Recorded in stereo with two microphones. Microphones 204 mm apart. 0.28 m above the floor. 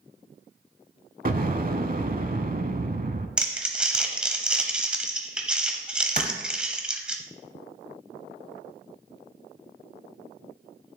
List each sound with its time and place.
1.2 s an explosion: 45° right (ahead or behind), 0.6 m
3.4 s crumpling: 5° right (ahead or behind), 0.9 m
6.2 s a clap: 40° right (ahead or behind), 1.2 m